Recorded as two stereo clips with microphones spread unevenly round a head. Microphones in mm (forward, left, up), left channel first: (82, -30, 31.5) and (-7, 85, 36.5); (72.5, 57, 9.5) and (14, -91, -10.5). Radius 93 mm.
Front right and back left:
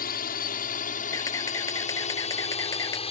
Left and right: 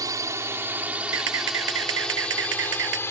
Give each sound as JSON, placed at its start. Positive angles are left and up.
{"t": 0.0, "sound": "a drone", "azimuth_deg": -45}
{"t": 1.1, "sound": "a camera shutter", "azimuth_deg": -125}